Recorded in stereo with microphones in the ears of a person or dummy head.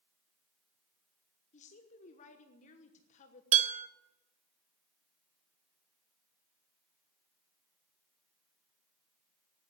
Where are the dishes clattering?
35° right (ahead or behind), 1.0 m.